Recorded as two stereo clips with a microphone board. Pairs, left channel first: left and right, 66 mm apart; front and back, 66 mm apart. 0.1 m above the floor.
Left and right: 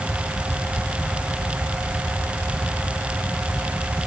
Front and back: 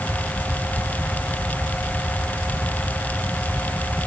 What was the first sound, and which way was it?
Only background noise.